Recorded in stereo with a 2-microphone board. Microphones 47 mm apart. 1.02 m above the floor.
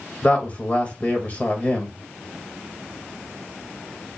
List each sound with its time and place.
0.2 s a woman speaking: 30° left (ahead or behind), 1.7 m